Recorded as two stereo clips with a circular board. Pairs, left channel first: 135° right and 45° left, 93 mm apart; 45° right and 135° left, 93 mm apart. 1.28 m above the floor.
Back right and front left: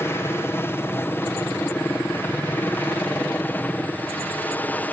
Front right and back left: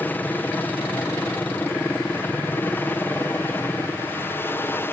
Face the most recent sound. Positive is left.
turn(degrees=-80)